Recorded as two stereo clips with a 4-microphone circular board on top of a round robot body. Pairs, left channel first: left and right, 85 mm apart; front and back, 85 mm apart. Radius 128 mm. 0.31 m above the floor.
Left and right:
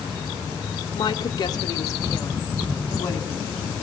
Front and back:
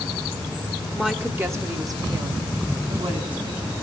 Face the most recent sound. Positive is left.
turn(degrees=155)